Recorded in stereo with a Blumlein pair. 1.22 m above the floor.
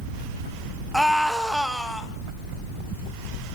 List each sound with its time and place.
0.9 s a scream: straight ahead, 1.6 m